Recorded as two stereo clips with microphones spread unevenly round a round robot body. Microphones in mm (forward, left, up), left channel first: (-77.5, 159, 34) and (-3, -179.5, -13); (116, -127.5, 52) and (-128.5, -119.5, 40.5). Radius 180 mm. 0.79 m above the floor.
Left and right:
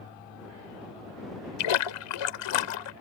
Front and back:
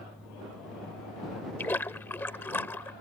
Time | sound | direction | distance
1.6 | a splash | 80° left | ?